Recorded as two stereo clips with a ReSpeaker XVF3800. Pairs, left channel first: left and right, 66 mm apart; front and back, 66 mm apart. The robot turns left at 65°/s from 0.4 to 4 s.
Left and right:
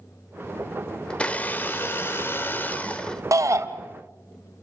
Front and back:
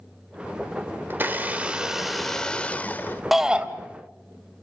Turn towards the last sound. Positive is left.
turn(degrees=-135)